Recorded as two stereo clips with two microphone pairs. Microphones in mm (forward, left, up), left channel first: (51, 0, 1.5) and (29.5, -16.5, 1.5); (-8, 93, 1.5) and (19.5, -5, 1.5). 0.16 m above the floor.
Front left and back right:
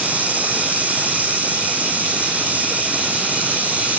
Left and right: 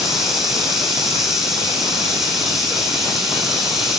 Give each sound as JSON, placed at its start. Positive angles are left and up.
{"t": 0.0, "sound": "running water", "azimuth_deg": -160, "distance_m": 4.0}